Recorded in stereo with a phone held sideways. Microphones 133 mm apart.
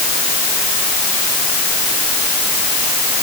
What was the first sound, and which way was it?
Only background noise.